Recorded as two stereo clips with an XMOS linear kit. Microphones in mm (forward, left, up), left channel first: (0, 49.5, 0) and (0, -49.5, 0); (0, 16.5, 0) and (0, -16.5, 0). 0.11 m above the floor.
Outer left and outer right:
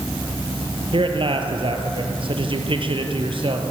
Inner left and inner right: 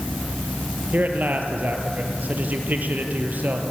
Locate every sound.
0.9 s a man speaking: 60° right (ahead or behind), 3.5 m